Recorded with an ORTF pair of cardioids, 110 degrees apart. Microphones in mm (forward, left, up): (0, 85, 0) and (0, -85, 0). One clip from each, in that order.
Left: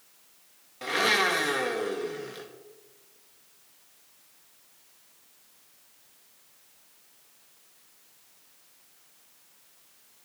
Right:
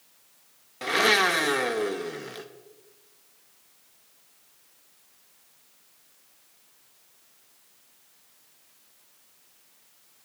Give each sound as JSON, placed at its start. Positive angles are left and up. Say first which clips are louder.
{"t": 0.8, "sound": "a blender", "louder": "right 3 dB", "azimuth_deg": -25, "distance_m": 0.7}